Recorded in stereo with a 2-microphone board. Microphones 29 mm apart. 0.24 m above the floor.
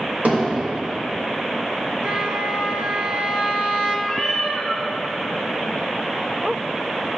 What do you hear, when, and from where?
0.2 s hammering: 55° right (ahead or behind), 2.5 m
2.0 s a trumpet: 40° right (ahead or behind), 1.0 m
4.1 s a cat meowing: 10° left (ahead or behind), 1.3 m